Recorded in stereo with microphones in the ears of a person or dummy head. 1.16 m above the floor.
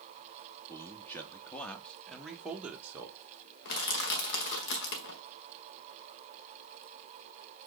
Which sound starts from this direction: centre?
A man speaking, at 0.7 s.